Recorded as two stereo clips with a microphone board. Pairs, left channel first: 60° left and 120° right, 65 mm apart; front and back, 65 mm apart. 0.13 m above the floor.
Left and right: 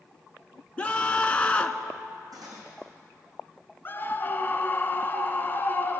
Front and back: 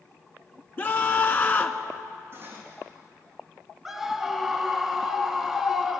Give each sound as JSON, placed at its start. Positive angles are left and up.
{"t": 0.8, "sound": "a scream", "azimuth_deg": 10, "distance_m": 1.2}
{"t": 2.3, "sound": "cutlery clinking", "azimuth_deg": -125, "distance_m": 5.0}
{"t": 3.9, "sound": "a scream", "azimuth_deg": 95, "distance_m": 1.5}